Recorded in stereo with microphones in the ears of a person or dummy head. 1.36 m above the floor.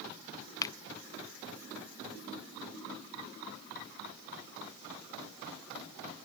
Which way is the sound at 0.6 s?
30° left (ahead or behind).